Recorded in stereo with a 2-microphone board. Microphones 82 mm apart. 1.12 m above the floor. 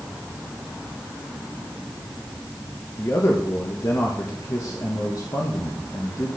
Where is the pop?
I don't hear a pop.